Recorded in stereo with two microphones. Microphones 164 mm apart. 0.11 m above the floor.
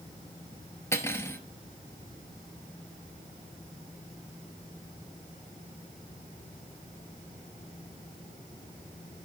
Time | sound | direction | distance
0.9 | cutlery clinking | 15° left (ahead or behind) | 1.1 m